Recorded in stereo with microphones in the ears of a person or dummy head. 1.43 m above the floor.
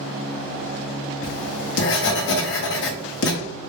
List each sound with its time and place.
1.2 s writing: 65° left (ahead or behind), 0.7 m